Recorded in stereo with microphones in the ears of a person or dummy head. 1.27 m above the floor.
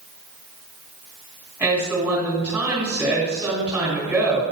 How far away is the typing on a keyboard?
No typing on a keyboard in this recording.